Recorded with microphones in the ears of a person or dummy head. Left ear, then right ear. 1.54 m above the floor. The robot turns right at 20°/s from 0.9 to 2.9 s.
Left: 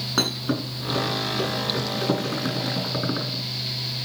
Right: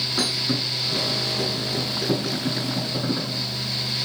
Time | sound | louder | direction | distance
0.2 | a thud | left 2 dB | 80° left | 6.5 m